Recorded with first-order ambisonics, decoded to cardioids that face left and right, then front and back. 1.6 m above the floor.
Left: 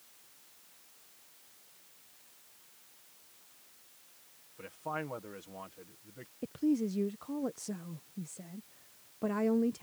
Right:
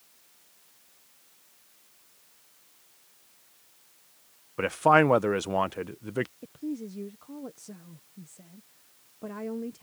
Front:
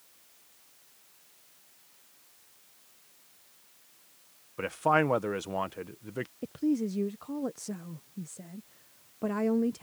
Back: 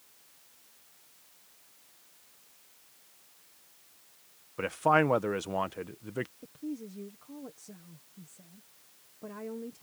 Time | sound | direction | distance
4.6 | a man speaking | 95° right | ?
6.4 | a woman speaking | 25° left | ?